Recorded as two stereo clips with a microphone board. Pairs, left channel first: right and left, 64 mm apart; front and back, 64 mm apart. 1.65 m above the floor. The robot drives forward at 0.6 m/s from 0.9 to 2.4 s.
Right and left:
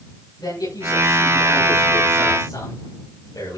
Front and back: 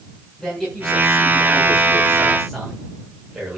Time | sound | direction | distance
0.4 | a man speaking | 85° right | 8.5 m